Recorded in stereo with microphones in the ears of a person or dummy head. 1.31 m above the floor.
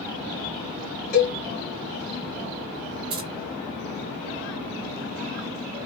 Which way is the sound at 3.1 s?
25° right (ahead or behind).